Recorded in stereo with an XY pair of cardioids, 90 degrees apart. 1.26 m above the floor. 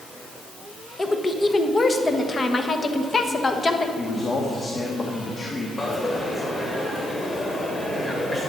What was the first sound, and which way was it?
A woman speaking, 30° left.